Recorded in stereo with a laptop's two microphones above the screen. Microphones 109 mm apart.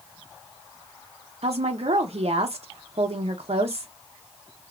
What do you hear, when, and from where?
1.4 s a woman speaking: 65° right (ahead or behind), 0.6 m